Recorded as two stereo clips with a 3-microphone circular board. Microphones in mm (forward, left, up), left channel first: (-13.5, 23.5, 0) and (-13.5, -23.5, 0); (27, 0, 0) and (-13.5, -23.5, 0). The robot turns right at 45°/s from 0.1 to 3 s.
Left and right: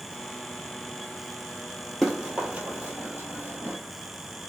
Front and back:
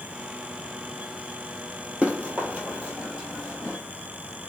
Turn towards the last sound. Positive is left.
turn(degrees=-75)